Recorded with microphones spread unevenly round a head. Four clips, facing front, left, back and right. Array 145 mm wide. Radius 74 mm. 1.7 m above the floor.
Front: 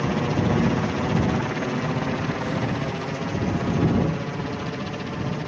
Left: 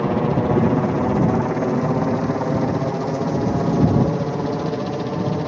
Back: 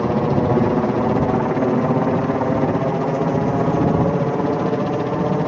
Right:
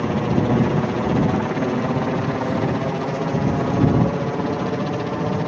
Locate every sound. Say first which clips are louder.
0.0 s a helicopter: left 1 dB, back 6 dB; 160° left; by 5.5 s straight behind